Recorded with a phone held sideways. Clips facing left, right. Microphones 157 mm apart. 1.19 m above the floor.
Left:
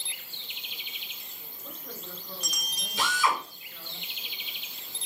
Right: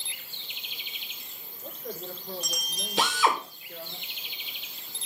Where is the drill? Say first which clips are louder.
Right 3 dB; 80° right, 2.5 m.